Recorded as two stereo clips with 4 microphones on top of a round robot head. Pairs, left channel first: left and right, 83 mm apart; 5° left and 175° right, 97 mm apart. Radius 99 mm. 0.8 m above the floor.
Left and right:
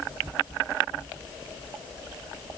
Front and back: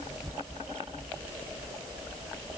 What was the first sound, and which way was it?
Only background noise.